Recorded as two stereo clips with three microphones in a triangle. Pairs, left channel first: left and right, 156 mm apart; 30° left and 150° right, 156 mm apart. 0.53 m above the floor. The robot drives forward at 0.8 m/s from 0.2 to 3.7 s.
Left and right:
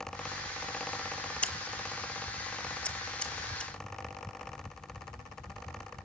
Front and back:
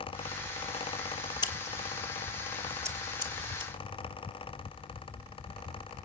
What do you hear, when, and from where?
1.4 s scissors: 20° left, 1.2 m; by 6.1 s 170° left, 1.7 m